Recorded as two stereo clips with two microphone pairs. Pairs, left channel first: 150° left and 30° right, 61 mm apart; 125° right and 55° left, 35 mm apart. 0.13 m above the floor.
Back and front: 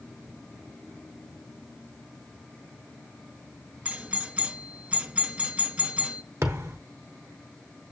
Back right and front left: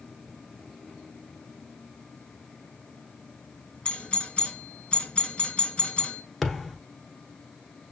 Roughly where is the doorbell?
Right.